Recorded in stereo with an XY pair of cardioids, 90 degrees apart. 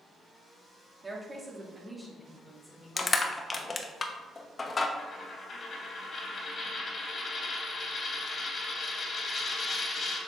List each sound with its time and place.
1.0 s a woman speaking: 25° right, 2 m; by 3.9 s 10° left, 3.5 m
3.0 s crushing: 35° left, 0.9 m
5.0 s a dropped coin: 50° left, 2.5 m